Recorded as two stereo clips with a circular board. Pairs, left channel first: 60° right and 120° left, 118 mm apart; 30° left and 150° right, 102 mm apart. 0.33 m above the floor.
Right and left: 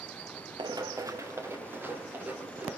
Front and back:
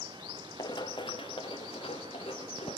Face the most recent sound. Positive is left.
turn(degrees=40)